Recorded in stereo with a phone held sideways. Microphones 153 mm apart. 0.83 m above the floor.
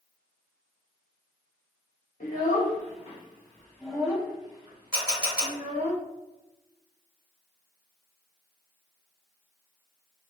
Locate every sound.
2.2 s a child speaking: 60° left (ahead or behind), 1.0 m; by 5.9 s 55° right (ahead or behind), 1.3 m
4.9 s a camera shutter: 5° right (ahead or behind), 1.6 m